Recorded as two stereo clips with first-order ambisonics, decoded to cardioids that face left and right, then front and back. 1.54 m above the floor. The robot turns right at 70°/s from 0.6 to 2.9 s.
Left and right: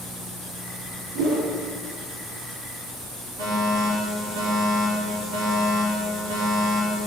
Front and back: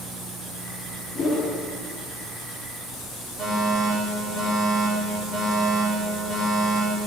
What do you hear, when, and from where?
1.1 s a whoosh: 75° right, 1.9 m; by 1.5 s 50° right, 1.9 m
3.4 s a fire alarm: 75° right, 4 m